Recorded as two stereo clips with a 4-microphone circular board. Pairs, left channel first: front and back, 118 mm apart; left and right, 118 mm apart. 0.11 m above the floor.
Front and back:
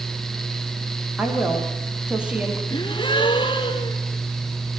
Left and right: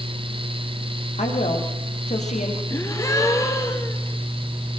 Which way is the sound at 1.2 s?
100° left.